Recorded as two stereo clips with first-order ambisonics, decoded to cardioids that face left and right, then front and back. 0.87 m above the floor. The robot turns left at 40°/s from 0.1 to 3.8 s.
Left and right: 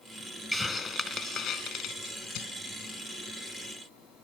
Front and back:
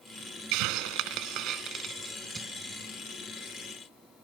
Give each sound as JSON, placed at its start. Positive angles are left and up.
{"t": 0.5, "sound": "a hiss", "azimuth_deg": 175, "distance_m": 1.4}